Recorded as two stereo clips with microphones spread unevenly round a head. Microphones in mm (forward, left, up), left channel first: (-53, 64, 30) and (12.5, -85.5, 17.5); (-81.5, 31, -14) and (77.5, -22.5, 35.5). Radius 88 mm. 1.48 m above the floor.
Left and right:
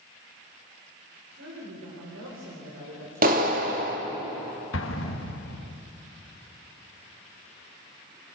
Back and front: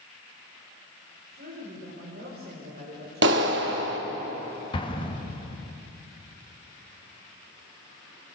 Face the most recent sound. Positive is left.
turn(degrees=95)